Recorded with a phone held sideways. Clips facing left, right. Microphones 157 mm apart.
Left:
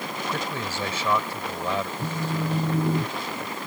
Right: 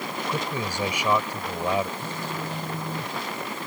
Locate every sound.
0.3 s a man speaking: 15° right (ahead or behind)
2.0 s a phone buzzing: 75° left (ahead or behind)